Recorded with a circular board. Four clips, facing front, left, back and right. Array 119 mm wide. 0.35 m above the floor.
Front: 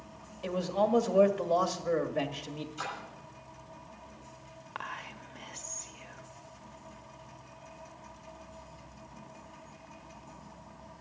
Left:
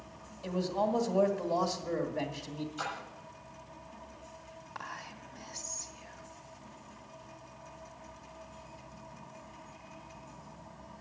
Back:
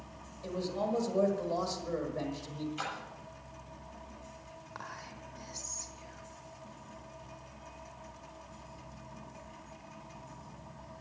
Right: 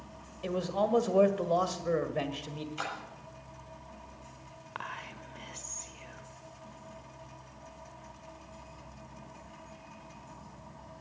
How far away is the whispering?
About 1.2 m.